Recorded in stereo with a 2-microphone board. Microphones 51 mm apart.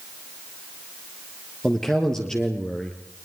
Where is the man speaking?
10° left (ahead or behind), 2.5 m.